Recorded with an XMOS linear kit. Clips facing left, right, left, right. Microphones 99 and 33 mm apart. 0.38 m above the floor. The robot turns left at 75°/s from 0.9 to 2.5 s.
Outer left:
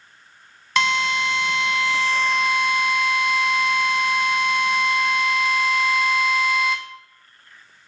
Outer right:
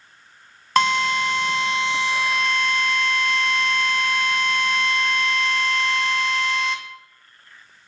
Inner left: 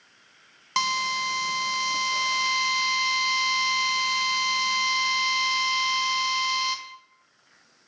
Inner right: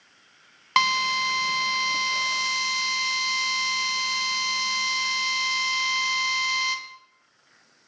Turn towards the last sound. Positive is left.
turn(degrees=170)